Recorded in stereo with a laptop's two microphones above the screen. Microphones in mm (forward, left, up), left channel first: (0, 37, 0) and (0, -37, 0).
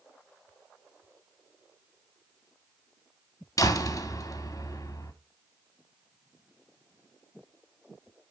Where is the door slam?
50° left (ahead or behind), 1.9 m.